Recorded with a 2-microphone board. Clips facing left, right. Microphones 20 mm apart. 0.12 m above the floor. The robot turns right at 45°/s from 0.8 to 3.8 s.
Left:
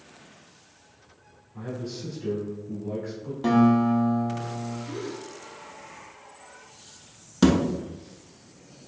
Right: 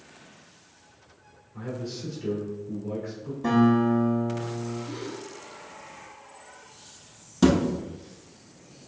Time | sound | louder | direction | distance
1.5 | a man speaking | even | 40° right | 1.9 m
3.4 | a guitar | left 1 dB | 45° left (ahead or behind) | 1.2 m
4.9 | a gasp | left 1 dB | 10° right (ahead or behind) | 1.5 m
7.4 | a thud | even | 20° left (ahead or behind) | 0.7 m